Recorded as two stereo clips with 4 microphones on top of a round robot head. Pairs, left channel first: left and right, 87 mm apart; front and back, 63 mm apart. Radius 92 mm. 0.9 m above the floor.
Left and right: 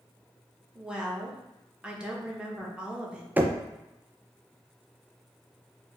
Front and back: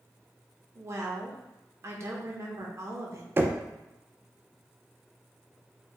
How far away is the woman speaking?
About 1.1 m.